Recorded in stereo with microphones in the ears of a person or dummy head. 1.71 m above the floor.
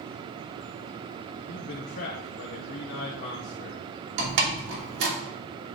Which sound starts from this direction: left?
A man speaking, at 1.5 s.